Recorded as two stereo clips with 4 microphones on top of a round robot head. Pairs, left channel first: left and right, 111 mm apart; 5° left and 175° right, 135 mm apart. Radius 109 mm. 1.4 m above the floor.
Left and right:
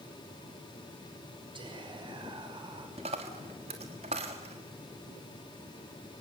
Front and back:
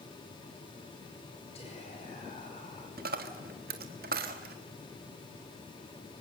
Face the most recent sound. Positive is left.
turn(degrees=-145)